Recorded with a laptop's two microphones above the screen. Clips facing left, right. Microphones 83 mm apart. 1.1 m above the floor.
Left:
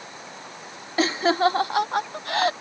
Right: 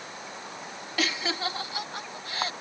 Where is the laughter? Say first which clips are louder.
Left 10 dB; 30° left (ahead or behind); by 2.5 s 80° left.